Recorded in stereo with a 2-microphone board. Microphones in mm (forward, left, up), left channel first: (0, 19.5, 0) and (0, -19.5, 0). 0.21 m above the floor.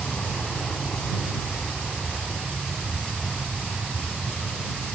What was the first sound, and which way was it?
An aircraft, 45° left (ahead or behind).